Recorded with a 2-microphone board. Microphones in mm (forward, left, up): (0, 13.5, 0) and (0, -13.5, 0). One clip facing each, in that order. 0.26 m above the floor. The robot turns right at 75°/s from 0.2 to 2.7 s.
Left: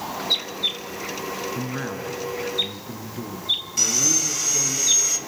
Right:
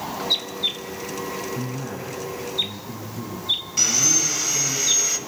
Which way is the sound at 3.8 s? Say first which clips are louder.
Right 2 dB; 10° right (ahead or behind).